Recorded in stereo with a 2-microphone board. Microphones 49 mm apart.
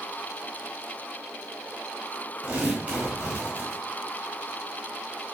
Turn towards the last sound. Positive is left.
turn(degrees=-25)  # may be behind; listen again after turning